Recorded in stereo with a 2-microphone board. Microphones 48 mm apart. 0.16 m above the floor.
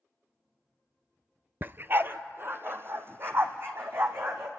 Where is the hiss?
I don't hear a hiss.